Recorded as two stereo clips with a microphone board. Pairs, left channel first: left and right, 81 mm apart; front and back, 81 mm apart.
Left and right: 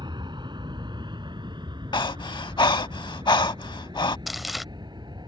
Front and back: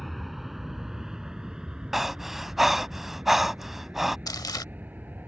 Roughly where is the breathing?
Left.